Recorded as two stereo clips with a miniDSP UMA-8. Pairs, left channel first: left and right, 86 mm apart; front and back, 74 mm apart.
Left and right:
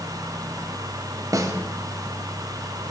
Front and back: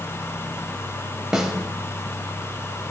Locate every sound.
1.3 s a snare drum: 100° right, 0.7 m